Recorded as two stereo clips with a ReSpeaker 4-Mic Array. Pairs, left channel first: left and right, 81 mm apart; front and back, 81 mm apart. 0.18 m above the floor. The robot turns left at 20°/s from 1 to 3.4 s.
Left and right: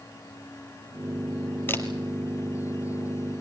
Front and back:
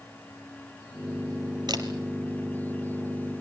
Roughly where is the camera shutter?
Behind left.